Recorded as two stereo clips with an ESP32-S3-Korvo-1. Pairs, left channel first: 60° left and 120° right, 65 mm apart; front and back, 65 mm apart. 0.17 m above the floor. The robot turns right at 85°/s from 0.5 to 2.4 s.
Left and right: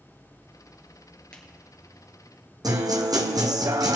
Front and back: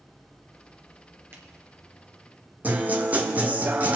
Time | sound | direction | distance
1.3 | a finger snap | 135° left | 2.5 m
2.6 | a guitar | 115° right | 1.5 m